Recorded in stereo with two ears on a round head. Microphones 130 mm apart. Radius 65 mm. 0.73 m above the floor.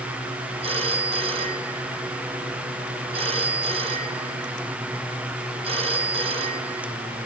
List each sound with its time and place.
0.6 s a phone ringing: 45° right (ahead or behind), 5 m